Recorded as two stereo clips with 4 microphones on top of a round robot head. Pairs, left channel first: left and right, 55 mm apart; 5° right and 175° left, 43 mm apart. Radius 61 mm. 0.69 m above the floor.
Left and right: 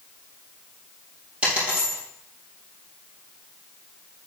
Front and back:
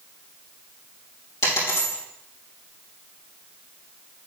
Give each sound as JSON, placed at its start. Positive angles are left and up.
{"t": 1.4, "sound": "a dropped coin", "azimuth_deg": -20, "distance_m": 3.5}